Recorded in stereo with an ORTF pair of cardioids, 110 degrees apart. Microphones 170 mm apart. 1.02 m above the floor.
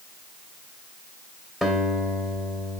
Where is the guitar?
Straight ahead, 3 m.